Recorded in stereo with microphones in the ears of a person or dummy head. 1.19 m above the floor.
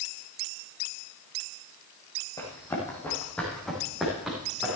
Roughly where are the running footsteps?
Centre.